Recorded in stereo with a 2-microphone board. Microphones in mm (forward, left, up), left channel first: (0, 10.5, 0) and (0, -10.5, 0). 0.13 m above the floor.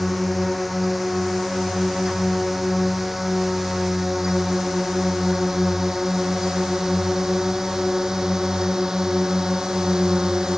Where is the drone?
Centre (ahead or behind); by 10.6 s 30° right (ahead or behind).